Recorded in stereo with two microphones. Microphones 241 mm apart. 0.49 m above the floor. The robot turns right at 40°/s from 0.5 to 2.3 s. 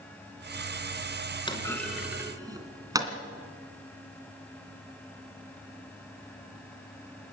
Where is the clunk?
20° left (ahead or behind), 2.5 m; by 3.1 s 15° right (ahead or behind), 2.5 m.